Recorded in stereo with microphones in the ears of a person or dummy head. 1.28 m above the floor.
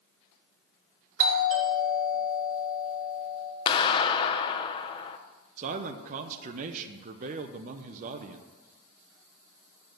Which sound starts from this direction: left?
A clap, at 3.7 s.